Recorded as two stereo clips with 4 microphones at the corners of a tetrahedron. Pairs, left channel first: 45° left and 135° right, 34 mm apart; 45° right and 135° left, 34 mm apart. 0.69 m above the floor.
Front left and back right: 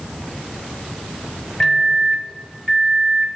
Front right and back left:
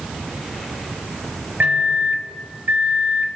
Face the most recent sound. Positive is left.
turn(degrees=120)